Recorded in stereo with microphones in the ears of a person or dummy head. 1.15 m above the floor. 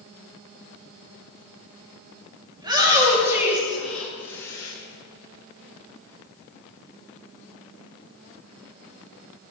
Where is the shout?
25° right (ahead or behind), 1.9 m; by 4.7 s 20° left (ahead or behind), 1.6 m.